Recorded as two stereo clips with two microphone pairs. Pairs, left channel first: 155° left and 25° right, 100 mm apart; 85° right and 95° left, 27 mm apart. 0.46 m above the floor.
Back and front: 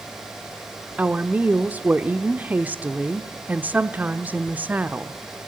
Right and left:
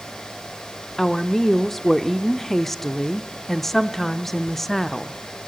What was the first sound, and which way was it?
A woman speaking, 45° right.